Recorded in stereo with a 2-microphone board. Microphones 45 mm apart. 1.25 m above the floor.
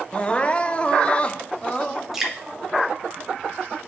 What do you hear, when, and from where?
0.1 s crying: 25° left (ahead or behind), 0.5 m
2.1 s dripping: 10° right (ahead or behind), 1.6 m